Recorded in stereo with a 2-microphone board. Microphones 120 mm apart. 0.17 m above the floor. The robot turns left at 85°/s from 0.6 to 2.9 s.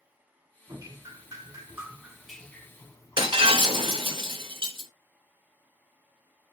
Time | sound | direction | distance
0.7 | dripping | 45° right | 0.6 m
3.2 | breaking glass | 45° right (ahead or behind) | 1.2 m